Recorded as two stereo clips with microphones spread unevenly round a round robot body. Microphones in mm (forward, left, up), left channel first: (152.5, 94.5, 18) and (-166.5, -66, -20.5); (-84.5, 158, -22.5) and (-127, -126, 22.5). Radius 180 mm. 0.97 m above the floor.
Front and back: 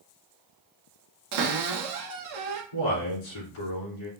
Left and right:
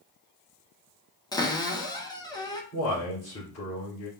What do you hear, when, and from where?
1.3 s a cupboard door: 160° left, 0.8 m
2.7 s a man speaking: 25° left, 2 m